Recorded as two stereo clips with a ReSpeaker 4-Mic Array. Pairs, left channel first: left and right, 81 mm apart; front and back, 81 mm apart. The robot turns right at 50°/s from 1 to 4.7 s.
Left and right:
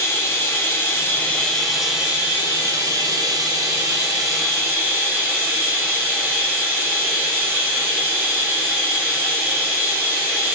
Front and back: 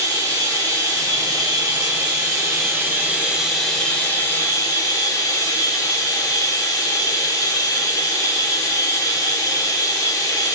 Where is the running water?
145° left, 1.2 m; by 10.6 s 30° right, 1.2 m.